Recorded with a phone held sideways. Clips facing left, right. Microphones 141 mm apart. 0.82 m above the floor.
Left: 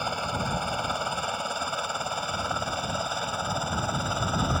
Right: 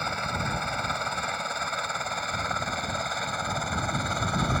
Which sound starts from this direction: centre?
A helicopter, at 0.0 s.